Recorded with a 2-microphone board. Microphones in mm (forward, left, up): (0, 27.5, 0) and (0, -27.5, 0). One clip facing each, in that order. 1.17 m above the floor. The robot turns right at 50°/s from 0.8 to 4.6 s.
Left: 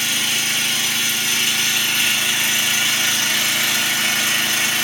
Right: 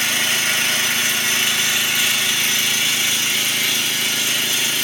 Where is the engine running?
65° right, 2 m; by 4.8 s 125° left, 2 m.